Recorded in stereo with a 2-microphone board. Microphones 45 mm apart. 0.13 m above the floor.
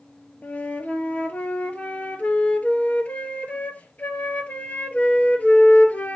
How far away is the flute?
About 1.5 m.